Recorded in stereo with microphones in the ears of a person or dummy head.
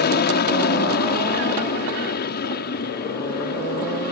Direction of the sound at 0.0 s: 45° left (ahead or behind).